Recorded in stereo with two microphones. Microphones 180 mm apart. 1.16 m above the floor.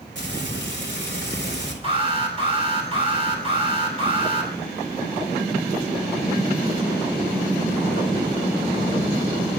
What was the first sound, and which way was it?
Frying, 85° right.